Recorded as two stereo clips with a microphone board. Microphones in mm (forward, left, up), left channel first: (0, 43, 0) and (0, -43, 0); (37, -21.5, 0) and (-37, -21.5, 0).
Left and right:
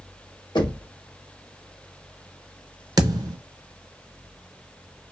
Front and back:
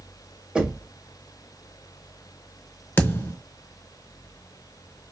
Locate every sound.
0.6 s knocking: 105° left, 1.1 m
3.0 s a thud: 60° right, 0.5 m